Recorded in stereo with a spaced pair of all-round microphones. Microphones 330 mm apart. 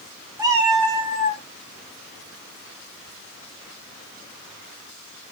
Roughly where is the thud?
I don't hear a thud.